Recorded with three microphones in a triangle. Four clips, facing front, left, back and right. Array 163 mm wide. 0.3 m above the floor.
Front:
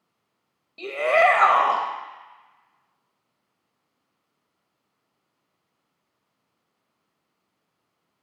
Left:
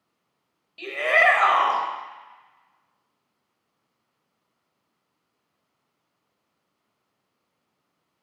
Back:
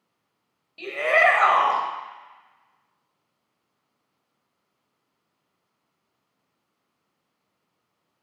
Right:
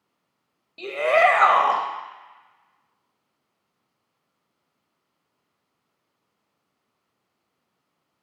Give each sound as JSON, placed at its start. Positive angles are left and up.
{"t": 0.8, "sound": "a shout", "azimuth_deg": -60, "distance_m": 1.1}